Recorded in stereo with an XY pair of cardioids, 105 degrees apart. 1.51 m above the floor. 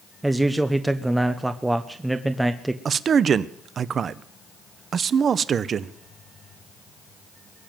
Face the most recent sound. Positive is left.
turn(degrees=-50)